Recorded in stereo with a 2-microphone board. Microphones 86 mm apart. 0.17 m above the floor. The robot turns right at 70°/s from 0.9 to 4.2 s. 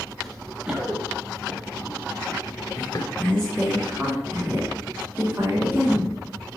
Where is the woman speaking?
20° left (ahead or behind), 1.7 m; by 6.6 s 30° right (ahead or behind), 1.7 m.